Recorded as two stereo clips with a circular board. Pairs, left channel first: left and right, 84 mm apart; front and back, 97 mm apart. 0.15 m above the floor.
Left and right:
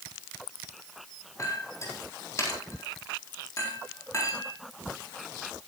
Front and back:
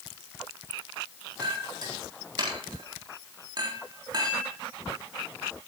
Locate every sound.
1.4 s a clink: 140° left, 4 m